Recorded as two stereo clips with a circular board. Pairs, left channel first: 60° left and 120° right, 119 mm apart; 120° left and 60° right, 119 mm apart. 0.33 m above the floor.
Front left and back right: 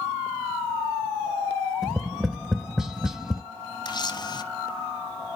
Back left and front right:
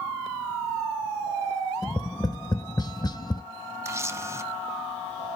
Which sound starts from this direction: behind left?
Tapping, at 1.8 s.